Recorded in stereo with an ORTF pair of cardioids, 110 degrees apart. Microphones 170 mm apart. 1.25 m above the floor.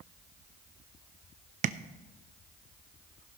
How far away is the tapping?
About 0.6 m.